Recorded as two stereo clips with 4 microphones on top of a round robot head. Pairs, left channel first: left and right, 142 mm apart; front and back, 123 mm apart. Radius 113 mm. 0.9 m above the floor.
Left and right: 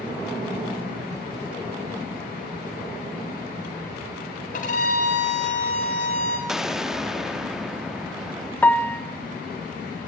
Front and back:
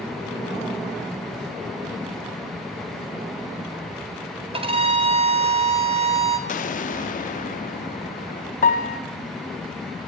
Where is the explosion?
5° right, 1.4 m.